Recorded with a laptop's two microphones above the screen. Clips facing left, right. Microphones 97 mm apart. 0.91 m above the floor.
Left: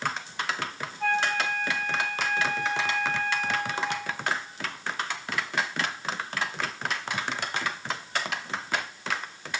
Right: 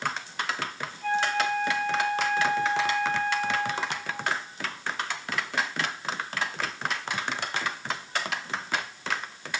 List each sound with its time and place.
1.0 s a flute: 70° left (ahead or behind), 9.5 m